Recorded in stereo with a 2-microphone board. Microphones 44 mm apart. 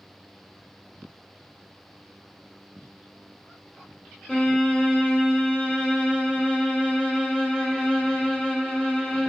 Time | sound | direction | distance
4.3 | a violin | 25° left (ahead or behind) | 0.8 m